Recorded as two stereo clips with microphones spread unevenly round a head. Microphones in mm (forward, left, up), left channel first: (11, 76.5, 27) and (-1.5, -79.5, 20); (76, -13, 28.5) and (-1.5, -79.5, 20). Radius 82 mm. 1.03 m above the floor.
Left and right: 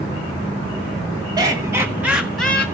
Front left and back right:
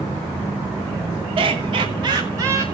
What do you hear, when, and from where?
1.4 s laughter: 155° right, 1.3 m; by 2.6 s 165° left, 0.9 m